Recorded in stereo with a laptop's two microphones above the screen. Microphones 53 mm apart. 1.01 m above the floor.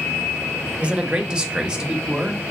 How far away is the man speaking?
About 0.6 m.